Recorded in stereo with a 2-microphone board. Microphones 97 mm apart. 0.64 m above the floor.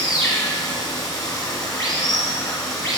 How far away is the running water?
About 2 m.